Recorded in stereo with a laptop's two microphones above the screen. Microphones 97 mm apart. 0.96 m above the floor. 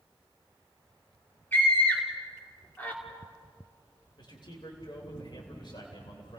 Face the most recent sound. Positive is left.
turn(degrees=55)  # may be behind; listen again after turning